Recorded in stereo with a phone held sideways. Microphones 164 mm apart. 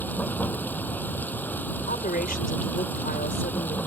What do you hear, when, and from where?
0.0 s running water: 10° left (ahead or behind)
1.9 s a woman speaking: 65° left (ahead or behind)